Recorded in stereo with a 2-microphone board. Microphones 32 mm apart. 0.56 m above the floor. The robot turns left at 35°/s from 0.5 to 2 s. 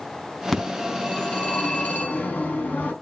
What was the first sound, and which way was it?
A phone ringing, 170° left.